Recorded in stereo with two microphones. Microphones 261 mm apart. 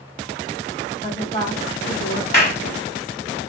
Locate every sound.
1.0 s a woman speaking: 25° left (ahead or behind), 2 m; by 2.2 s centre (ahead or behind), 2.5 m
2.3 s a clap: 40° left (ahead or behind), 1.2 m